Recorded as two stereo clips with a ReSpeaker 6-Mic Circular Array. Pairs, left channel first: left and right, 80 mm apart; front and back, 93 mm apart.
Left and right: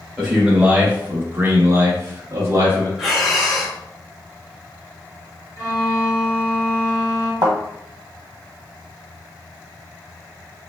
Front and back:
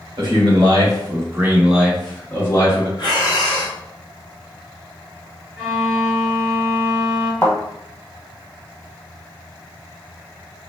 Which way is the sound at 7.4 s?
70° right.